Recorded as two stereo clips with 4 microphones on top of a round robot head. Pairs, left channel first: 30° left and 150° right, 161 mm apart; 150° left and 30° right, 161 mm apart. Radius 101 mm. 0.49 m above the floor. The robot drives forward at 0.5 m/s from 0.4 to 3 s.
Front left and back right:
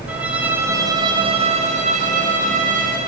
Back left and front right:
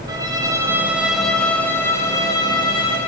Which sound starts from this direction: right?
A violin, at 0.1 s.